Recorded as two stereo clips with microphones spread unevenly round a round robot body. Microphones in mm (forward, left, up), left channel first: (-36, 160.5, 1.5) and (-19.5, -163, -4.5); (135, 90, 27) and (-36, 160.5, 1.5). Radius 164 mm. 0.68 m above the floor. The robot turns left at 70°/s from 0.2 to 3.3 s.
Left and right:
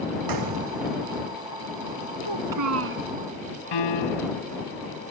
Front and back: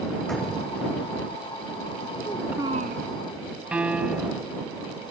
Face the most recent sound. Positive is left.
turn(degrees=75)